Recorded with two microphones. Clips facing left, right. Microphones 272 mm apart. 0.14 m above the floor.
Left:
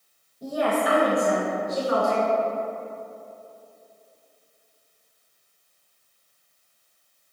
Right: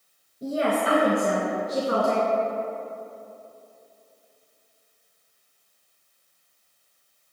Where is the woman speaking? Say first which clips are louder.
Even; 20° right (ahead or behind), 2.5 m; by 2.3 s 45° right (ahead or behind), 2 m.